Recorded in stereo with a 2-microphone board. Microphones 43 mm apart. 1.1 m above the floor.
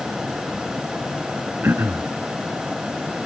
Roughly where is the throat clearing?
Right.